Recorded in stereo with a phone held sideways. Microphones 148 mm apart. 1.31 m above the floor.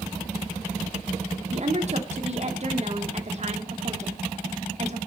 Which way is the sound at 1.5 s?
50° right (ahead or behind).